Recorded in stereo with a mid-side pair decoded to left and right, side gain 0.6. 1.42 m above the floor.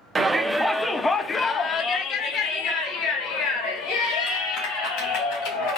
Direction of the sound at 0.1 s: 20° right.